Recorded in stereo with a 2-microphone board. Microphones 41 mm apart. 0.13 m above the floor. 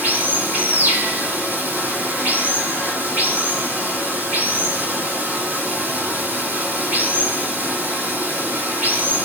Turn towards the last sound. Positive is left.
turn(degrees=-45)  # may be behind; listen again after turning